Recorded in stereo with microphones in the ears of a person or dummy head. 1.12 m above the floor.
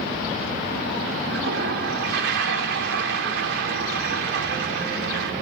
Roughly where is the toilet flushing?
Right.